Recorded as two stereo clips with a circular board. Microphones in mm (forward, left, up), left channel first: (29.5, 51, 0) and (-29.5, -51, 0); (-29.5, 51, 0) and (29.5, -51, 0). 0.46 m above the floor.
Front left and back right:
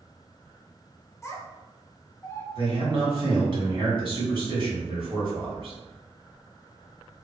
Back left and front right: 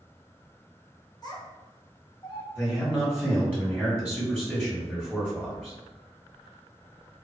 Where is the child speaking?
105° left, 0.5 m.